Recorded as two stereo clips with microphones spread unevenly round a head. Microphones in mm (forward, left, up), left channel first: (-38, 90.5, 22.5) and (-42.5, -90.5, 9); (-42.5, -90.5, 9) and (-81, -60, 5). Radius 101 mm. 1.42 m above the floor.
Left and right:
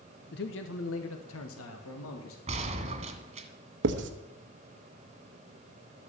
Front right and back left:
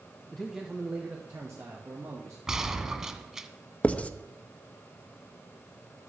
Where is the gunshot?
140° right, 1.8 m.